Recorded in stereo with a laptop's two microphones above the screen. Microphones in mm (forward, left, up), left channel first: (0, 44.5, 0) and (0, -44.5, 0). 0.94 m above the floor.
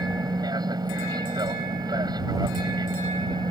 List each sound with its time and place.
0.0 s an aircraft: 50° right (ahead or behind)